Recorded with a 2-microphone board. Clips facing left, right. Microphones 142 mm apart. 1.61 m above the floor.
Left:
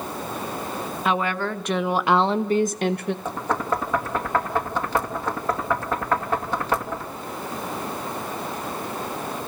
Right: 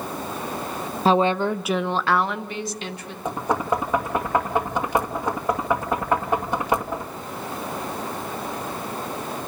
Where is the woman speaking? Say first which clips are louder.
Right 6 dB; 30° right (ahead or behind), 1.3 m; by 3.1 s 60° left (ahead or behind), 1.5 m.